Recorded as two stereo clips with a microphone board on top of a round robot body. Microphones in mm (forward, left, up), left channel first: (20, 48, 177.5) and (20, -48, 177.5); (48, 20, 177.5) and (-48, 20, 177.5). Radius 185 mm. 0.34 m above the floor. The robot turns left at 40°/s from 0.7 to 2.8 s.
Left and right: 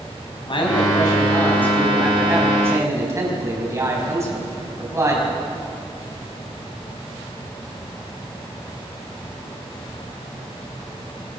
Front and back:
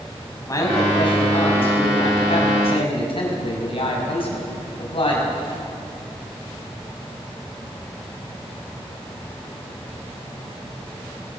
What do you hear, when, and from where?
0.5 s a man speaking: 55° left, 4.5 m; by 5.3 s 30° right, 4.5 m